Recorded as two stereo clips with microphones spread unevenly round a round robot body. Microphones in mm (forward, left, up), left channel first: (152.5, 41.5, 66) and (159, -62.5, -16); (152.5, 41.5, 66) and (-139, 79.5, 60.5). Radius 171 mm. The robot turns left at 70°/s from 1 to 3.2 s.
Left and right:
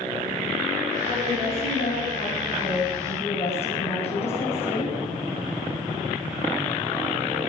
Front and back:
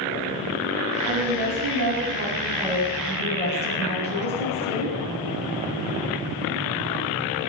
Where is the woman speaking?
155° right, 7 m; by 5.0 s 55° left, 7 m.